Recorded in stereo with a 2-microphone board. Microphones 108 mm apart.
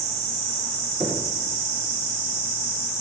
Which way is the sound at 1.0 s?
5° right (ahead or behind).